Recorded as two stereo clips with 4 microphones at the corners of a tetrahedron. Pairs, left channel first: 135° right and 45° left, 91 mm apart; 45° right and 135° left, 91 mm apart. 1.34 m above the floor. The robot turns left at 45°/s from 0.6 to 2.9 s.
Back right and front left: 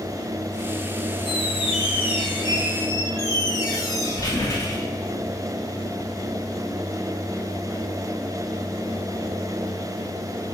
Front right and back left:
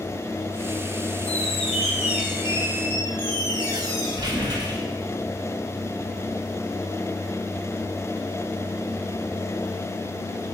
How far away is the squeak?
About 1.7 m.